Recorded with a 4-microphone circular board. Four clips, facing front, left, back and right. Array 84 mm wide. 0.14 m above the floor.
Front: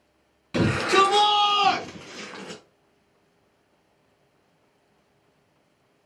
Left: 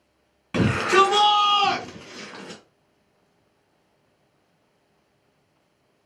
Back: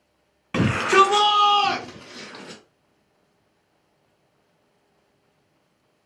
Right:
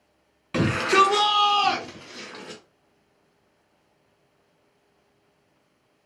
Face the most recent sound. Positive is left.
turn(degrees=15)